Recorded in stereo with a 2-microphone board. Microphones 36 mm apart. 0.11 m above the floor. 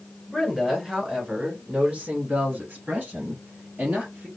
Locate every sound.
0.3 s a woman speaking: 5° right (ahead or behind), 1.6 m; by 4.3 s 55° right (ahead or behind), 2.5 m